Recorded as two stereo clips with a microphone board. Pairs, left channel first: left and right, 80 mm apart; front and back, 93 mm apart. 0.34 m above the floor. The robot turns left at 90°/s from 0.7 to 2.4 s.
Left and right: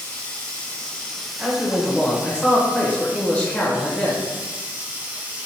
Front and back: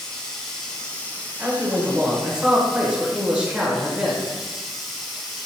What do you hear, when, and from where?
0.0 s running water: 65° left, 0.7 m; by 5.5 s 85° right, 0.7 m
1.4 s a man speaking: 140° right, 0.9 m; by 4.3 s 130° left, 0.9 m